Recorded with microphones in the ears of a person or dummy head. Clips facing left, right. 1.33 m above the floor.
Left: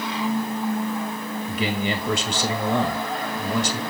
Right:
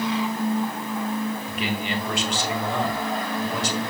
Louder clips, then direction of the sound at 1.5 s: Left 2 dB; 80° left.